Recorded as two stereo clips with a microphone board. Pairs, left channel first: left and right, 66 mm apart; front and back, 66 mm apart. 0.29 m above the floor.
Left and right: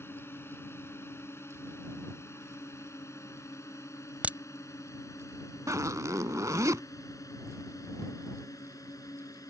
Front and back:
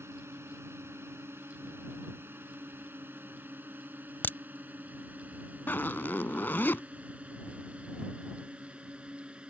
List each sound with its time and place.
0.0 s a drone: 140° left; by 9.5 s 110° left
4.2 s a crack: 35° right
5.7 s a zipper: 55° right